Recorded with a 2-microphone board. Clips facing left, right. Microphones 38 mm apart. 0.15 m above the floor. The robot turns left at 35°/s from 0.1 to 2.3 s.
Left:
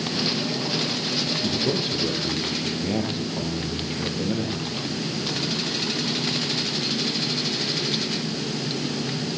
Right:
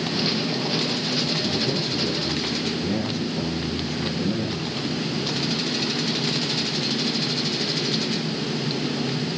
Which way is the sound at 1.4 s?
55° left.